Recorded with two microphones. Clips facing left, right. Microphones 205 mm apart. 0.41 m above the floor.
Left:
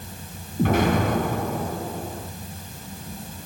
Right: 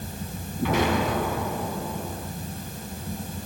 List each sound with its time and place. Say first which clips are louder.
0.6 s an explosion: left 3 dB; 50° left (ahead or behind), 3 m